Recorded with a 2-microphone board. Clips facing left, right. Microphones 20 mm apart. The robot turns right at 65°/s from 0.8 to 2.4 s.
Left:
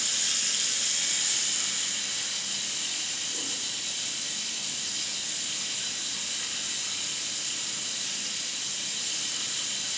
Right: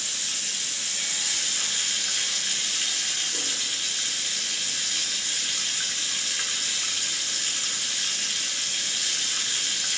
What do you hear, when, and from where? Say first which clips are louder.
0.0 s running water: left 1 dB; 145° left, 8 m; by 10.0 s 110° right, 8 m